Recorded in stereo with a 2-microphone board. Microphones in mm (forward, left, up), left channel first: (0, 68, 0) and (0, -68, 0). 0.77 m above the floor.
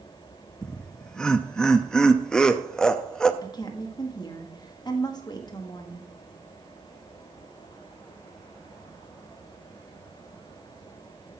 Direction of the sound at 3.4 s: 30° left (ahead or behind).